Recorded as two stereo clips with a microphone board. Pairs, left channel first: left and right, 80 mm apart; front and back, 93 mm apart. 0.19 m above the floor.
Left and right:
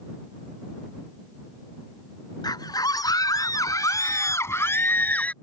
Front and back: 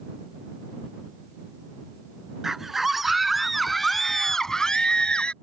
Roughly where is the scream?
Left.